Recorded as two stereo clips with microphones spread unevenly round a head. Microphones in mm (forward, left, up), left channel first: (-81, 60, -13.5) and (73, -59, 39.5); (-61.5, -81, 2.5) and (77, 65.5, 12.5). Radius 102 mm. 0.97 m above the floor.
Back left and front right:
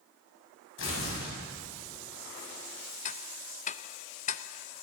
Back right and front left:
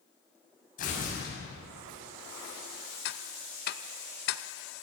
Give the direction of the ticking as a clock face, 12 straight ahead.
6 o'clock.